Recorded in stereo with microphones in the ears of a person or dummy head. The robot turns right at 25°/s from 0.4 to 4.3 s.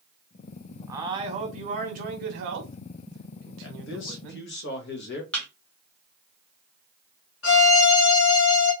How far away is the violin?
About 1.1 m.